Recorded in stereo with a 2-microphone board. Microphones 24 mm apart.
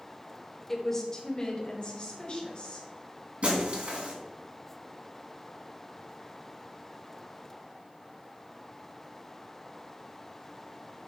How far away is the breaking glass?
About 1.7 m.